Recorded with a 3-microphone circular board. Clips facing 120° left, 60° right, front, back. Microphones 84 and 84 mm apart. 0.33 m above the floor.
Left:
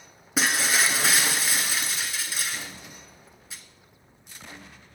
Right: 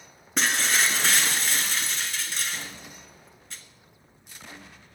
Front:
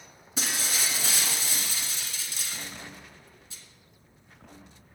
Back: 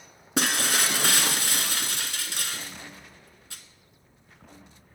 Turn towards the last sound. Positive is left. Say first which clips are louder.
# left 1 dB, back 7 dB
turn(degrees=-155)